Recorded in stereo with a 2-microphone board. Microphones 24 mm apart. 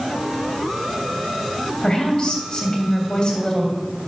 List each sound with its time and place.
1.8 s a woman speaking: 45° left (ahead or behind), 3 m